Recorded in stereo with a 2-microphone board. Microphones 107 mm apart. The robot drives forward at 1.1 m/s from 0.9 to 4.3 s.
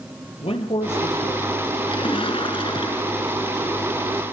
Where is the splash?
50° left (ahead or behind), 1.5 m; by 3.3 s 45° left (ahead or behind), 1.7 m.